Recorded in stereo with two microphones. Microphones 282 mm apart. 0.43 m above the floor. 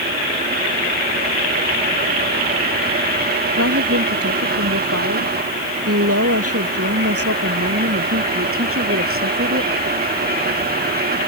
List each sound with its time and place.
3.5 s a woman speaking: 60° right (ahead or behind); by 9.7 s 50° right (ahead or behind)